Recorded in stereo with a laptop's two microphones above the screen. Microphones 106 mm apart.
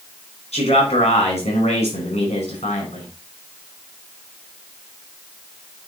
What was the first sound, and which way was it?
A man speaking, 75° left (ahead or behind).